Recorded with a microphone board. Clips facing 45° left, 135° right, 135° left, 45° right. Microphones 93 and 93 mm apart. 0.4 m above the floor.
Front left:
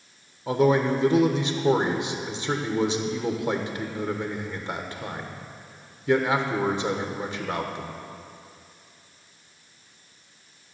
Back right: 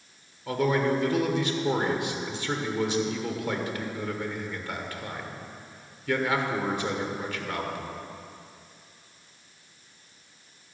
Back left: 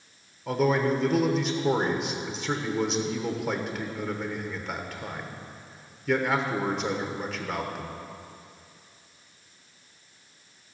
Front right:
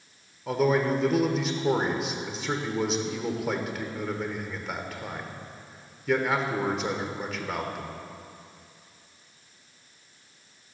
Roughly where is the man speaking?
Ahead left.